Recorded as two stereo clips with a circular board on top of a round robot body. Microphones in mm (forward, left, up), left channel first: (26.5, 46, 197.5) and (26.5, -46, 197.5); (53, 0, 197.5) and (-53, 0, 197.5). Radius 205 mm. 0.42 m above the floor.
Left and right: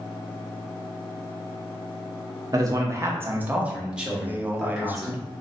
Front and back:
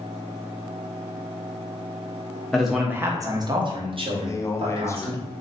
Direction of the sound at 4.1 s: 35° right.